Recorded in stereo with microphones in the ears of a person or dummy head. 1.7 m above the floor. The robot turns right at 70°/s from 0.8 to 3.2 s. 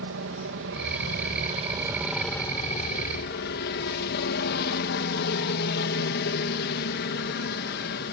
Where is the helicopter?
95° right; by 8.1 s 75° left.